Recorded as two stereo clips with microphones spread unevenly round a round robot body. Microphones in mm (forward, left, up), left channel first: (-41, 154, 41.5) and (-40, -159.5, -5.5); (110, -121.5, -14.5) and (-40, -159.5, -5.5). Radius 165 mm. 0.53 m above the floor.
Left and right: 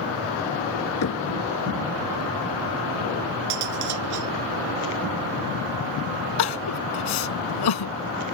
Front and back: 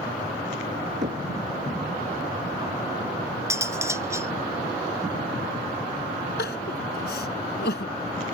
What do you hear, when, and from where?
1.0 s knocking: 135° left
3.5 s cutlery clinking: 95° right
6.4 s crying: 65° left